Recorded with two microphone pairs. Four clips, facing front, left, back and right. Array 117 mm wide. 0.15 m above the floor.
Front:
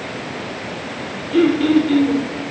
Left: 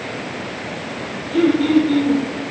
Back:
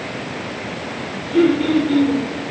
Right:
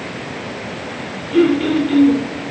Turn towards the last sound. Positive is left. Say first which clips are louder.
# right 1 dB, front 1 dB
turn(degrees=-55)